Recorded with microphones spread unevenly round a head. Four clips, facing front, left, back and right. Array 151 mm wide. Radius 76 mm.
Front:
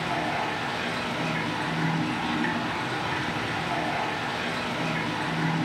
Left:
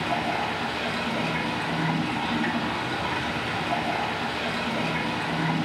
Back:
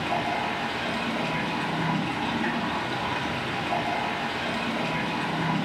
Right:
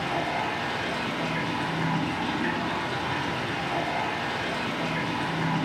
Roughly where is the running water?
Behind left.